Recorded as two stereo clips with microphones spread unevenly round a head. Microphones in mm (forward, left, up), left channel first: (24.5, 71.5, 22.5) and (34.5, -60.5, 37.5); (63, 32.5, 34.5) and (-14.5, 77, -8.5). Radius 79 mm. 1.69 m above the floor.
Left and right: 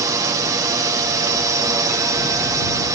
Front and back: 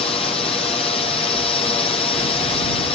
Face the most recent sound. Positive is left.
turn(degrees=-35)